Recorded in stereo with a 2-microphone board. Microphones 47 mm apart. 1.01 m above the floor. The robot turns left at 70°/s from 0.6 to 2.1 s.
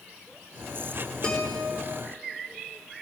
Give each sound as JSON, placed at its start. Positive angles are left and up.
{"t": 1.2, "sound": "a guitar", "azimuth_deg": 25, "distance_m": 4.0}